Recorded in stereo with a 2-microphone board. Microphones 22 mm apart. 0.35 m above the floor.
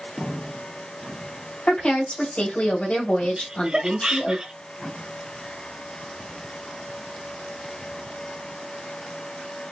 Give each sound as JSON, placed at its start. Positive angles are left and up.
{"t": 1.7, "sound": "a woman speaking", "side_deg": 55, "distance_m": 2.5}
{"t": 3.4, "sound": "laughter", "side_deg": -40, "distance_m": 1.1}